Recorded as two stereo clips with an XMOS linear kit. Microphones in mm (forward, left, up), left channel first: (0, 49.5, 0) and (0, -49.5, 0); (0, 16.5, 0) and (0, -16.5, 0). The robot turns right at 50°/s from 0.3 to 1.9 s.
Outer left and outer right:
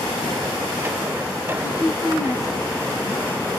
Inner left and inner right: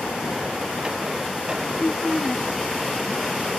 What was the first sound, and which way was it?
A woman speaking, 50° right (ahead or behind).